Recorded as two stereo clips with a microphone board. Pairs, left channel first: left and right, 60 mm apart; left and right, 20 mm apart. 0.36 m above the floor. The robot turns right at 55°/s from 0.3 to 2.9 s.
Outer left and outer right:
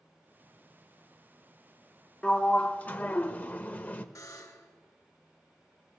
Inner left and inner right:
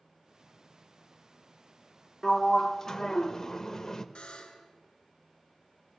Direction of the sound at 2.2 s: 15° left (ahead or behind).